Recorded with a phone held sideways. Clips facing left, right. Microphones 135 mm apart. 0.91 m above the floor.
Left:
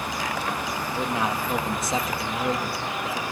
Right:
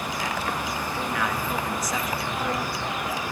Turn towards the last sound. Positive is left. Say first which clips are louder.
# left 3 dB
turn(degrees=25)  # may be behind; listen again after turning